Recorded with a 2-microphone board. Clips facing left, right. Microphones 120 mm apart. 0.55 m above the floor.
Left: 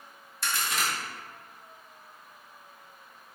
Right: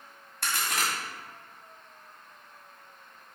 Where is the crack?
65° right (ahead or behind), 2.5 m.